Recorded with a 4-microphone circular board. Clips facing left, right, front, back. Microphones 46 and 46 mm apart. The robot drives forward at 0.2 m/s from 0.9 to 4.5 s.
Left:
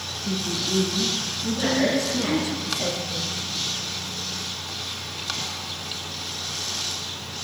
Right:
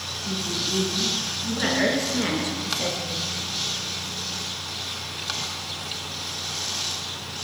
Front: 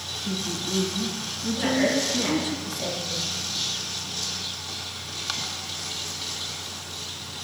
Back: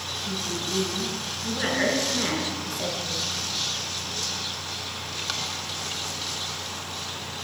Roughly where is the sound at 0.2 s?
Ahead left.